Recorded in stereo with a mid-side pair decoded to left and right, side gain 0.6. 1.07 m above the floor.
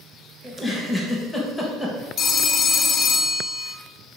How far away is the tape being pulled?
I don't hear tape being pulled.